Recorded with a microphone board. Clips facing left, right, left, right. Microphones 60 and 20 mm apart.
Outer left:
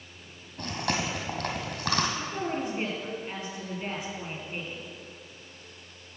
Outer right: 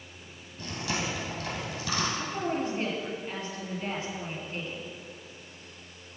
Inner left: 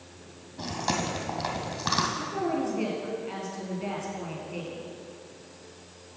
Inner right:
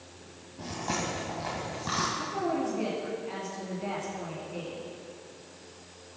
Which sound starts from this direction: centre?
A woman speaking, at 2.2 s.